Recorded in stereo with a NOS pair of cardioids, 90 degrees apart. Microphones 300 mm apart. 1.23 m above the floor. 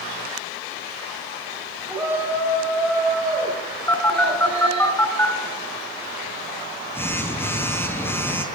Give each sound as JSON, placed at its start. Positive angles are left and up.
{"t": 1.9, "sound": "a shout", "azimuth_deg": -5, "distance_m": 8.5}
{"t": 3.9, "sound": "a phone buzzing", "azimuth_deg": 10, "distance_m": 4.0}